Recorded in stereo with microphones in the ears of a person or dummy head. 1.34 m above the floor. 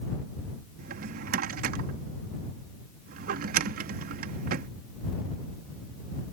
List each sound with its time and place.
0.8 s a drawer: 60° right (ahead or behind)